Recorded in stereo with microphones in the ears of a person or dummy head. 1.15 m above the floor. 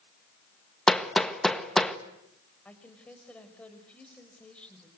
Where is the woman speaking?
5° left (ahead or behind), 4.5 m.